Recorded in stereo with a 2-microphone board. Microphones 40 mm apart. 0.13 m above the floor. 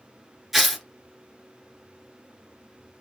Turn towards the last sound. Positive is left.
turn(degrees=0)  # may be behind; listen again after turning